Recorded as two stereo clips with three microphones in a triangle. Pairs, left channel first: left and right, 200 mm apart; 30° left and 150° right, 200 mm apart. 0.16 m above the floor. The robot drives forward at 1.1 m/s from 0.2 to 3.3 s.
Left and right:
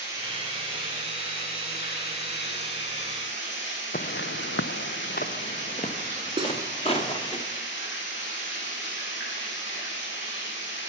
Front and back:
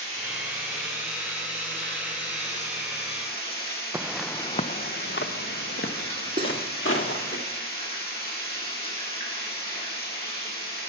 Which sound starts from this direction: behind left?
Footsteps, at 3.9 s.